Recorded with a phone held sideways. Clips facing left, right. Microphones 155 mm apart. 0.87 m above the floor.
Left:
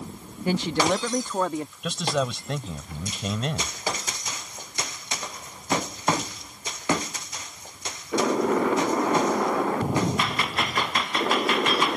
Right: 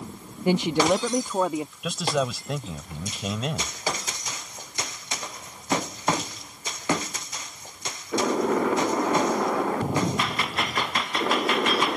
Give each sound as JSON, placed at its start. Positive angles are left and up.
{"t": 0.5, "sound": "a woman speaking", "side_deg": -20}
{"t": 1.8, "sound": "a man speaking", "side_deg": -5}